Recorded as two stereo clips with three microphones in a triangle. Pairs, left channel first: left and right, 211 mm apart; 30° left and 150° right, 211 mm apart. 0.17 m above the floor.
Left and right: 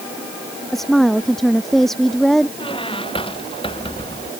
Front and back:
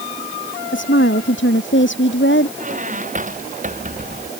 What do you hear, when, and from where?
0.7 s a woman speaking: straight ahead
2.6 s a squeak: 155° left